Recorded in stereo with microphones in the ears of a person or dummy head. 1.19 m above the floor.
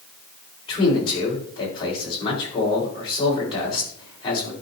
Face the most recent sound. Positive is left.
turn(degrees=25)  # may be behind; listen again after turning